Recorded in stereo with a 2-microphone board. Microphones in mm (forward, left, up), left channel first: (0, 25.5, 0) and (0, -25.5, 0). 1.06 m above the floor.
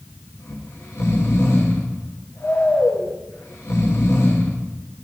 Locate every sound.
0.4 s snoring: 65° left (ahead or behind), 1.5 m